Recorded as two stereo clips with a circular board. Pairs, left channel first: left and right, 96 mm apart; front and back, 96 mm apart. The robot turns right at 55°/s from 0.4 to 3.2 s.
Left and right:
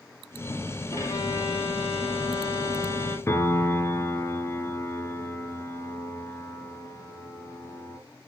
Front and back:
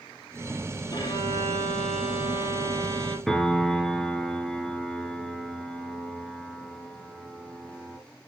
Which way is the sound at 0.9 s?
30° left.